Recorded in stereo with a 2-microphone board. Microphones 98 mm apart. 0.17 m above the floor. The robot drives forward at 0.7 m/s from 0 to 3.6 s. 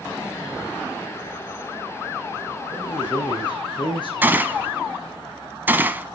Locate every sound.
2.7 s a man speaking: 50° left (ahead or behind), 4 m; by 4.1 s 55° left (ahead or behind), 3.5 m
4.2 s a gunshot: 20° right (ahead or behind), 0.8 m